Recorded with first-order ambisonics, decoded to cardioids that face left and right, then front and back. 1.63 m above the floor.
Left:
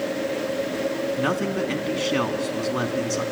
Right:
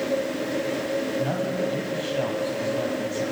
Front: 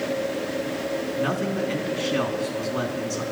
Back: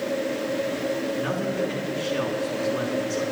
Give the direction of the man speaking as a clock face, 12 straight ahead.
9 o'clock.